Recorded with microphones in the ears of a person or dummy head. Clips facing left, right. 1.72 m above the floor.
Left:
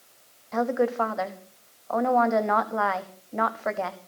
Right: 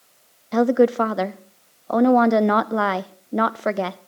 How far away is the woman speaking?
About 0.7 m.